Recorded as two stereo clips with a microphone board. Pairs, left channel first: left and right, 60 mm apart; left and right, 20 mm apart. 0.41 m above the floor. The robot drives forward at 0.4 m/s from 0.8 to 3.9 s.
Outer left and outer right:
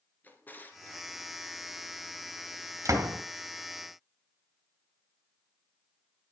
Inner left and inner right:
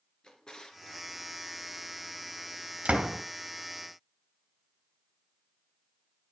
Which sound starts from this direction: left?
A drawer, at 0.2 s.